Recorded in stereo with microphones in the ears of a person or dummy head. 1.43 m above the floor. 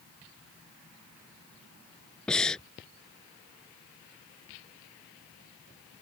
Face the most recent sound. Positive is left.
turn(degrees=0)  # may be behind; listen again after turning